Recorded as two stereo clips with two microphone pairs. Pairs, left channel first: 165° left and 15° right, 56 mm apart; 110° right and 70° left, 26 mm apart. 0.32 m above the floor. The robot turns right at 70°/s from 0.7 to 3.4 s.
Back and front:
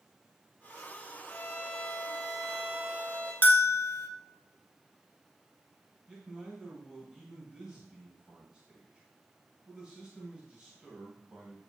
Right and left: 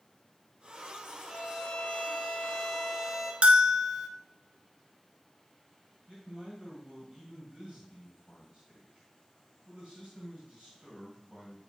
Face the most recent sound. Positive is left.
turn(degrees=55)